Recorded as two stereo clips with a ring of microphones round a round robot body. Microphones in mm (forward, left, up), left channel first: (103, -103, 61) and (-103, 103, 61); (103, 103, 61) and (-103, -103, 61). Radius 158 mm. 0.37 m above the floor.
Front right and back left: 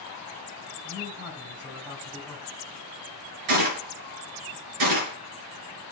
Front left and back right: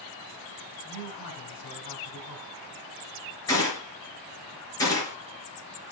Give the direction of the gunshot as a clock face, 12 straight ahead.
8 o'clock.